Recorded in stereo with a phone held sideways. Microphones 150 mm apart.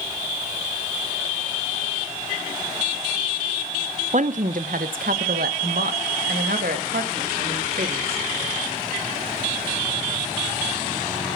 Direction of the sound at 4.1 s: 55° right (ahead or behind).